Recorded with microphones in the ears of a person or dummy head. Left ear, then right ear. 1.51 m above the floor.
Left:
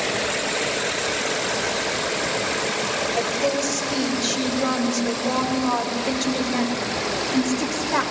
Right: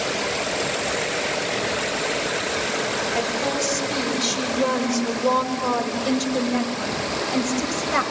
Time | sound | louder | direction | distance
3.1 | a woman speaking | left 1 dB | 80° right | 6 m